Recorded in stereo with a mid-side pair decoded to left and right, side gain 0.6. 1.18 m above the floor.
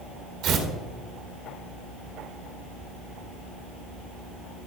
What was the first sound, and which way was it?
Tearing paper, 65° right.